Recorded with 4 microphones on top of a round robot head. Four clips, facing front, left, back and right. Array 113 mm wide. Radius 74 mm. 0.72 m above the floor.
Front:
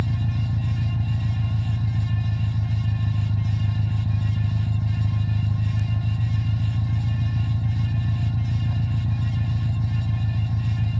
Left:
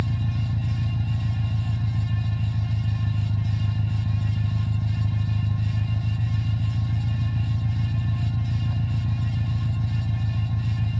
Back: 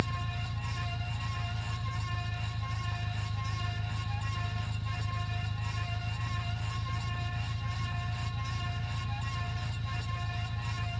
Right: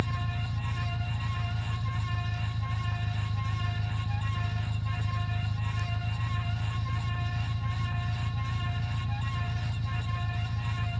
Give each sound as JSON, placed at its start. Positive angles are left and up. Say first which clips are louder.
{"t": 0.0, "sound": "an engine running", "louder": "left 5 dB, front 7 dB", "azimuth_deg": 35}